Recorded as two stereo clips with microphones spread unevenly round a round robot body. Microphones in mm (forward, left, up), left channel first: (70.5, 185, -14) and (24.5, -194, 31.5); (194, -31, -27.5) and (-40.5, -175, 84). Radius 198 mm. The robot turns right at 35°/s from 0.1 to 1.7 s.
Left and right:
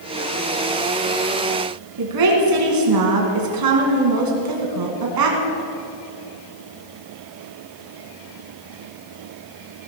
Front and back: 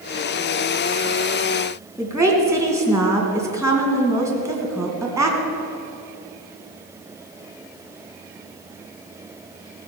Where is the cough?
I don't hear a cough.